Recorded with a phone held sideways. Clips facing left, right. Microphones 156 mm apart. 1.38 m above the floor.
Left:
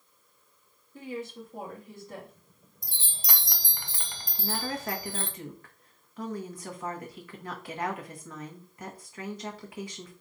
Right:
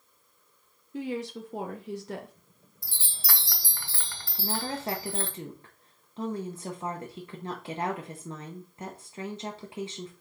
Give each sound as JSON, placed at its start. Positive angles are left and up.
{"t": 0.9, "sound": "a woman speaking", "side_deg": -70, "distance_m": 0.8}
{"t": 2.8, "sound": "a chime", "side_deg": 15, "distance_m": 0.7}
{"t": 4.4, "sound": "a woman speaking", "side_deg": -25, "distance_m": 0.9}